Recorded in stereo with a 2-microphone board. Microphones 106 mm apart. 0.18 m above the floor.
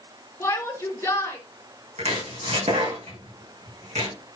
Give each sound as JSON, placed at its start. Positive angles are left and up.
{"t": 0.4, "sound": "a shout", "side_deg": 25, "distance_m": 2.0}
{"t": 2.0, "sound": "chopping", "side_deg": -85, "distance_m": 5.5}